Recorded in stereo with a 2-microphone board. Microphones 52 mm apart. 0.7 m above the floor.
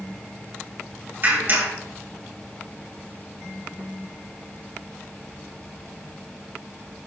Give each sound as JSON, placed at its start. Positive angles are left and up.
{"t": 1.2, "sound": "a clap", "side_deg": -45, "distance_m": 4.5}